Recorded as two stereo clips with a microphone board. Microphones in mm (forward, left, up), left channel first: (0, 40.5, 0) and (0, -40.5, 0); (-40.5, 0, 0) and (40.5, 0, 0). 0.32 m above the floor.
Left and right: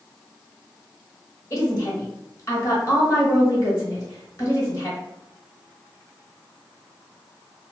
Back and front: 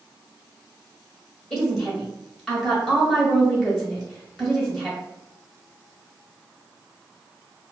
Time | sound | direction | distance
1.5 | a woman speaking | 110° left | 1.0 m